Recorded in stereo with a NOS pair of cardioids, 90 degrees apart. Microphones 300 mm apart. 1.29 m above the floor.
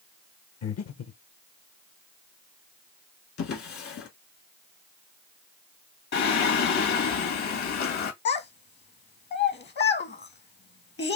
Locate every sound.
0.6 s breathing: 55° left, 1.1 m
3.4 s a drawer: 50° left, 1.7 m
6.1 s singing: 60° left, 1.8 m
8.2 s a child speaking: 35° left, 1.1 m